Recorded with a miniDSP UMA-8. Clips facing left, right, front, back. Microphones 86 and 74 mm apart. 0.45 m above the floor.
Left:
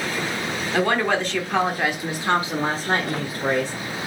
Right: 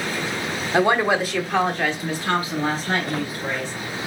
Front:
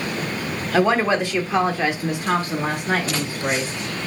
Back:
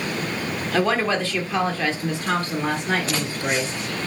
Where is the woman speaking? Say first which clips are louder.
Right 3 dB, front 3 dB; 55° right, 1.0 m; by 3.7 s 75° left, 1.5 m.